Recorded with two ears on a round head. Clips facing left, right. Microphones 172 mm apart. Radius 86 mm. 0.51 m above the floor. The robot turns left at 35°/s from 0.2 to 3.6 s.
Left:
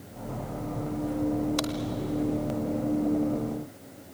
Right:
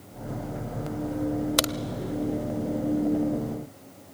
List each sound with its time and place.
1.6 s a crack: 70° right (ahead or behind), 0.7 m; by 1.7 s 65° right (ahead or behind), 0.7 m